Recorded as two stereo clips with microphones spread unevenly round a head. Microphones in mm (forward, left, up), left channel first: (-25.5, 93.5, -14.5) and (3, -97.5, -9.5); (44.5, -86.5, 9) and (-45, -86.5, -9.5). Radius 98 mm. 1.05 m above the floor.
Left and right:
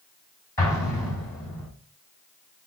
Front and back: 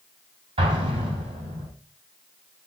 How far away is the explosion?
About 2.5 m.